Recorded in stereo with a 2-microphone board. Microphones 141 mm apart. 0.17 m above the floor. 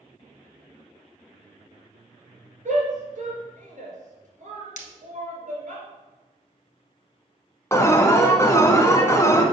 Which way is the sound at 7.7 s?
20° left (ahead or behind).